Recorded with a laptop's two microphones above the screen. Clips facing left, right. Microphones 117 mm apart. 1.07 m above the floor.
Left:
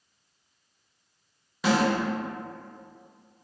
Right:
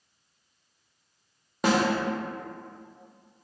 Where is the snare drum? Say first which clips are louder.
Even; 50° right (ahead or behind), 0.9 m.